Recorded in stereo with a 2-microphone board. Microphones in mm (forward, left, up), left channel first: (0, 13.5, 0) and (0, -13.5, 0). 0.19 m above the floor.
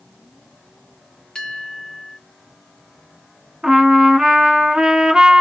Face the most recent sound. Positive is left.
turn(degrees=-30)  # may be behind; listen again after turning